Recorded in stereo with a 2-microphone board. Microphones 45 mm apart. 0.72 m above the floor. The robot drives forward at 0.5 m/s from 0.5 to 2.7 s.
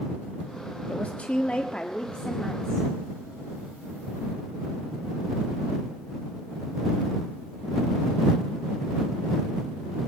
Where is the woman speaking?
30° left (ahead or behind), 1.2 m; by 2.9 s 20° left (ahead or behind), 1.9 m.